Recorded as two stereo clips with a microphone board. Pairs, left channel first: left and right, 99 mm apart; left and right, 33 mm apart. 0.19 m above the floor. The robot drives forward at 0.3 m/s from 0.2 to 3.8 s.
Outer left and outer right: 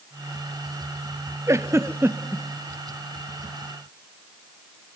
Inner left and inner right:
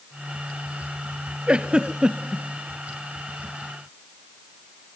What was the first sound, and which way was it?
A giggle, 30° right (ahead or behind).